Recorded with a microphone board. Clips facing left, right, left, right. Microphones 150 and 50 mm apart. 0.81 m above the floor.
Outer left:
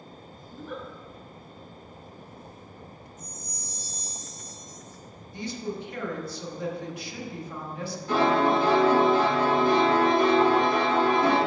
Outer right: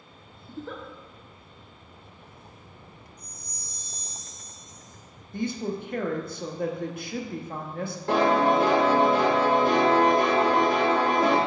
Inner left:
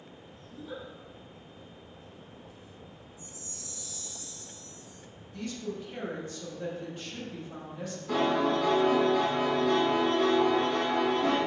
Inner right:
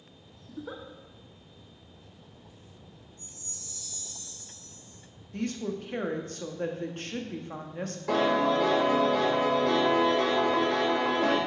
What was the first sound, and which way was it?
A giggle, 80° right.